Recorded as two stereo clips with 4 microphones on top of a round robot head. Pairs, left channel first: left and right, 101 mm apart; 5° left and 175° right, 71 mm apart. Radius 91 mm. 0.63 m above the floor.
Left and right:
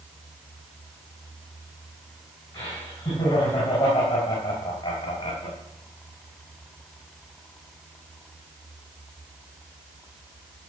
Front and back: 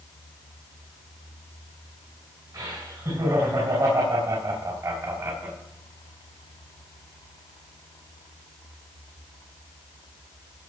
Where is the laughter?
160° left, 5.5 m; by 5.6 s 135° left, 2.0 m.